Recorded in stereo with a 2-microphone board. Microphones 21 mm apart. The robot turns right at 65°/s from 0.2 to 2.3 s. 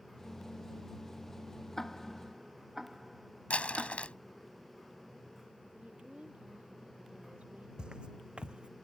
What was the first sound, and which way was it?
Ticking, 20° left (ahead or behind).